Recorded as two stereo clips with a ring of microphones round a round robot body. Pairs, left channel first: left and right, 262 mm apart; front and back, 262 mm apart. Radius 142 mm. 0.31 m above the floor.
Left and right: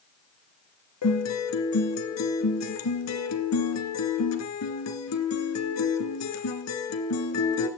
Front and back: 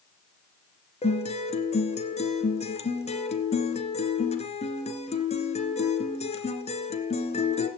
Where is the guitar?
65° left, 2.5 m.